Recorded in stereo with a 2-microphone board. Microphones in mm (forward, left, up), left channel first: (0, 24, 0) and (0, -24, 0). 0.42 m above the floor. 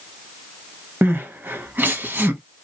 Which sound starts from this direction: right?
Crying, at 1.0 s.